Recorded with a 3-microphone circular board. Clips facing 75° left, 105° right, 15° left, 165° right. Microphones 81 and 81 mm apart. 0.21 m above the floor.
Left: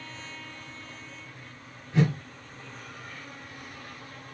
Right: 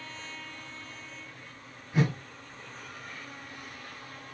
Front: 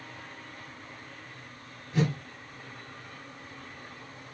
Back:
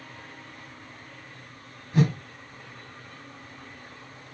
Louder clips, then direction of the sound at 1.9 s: Left 3 dB, back 4 dB; 175° right.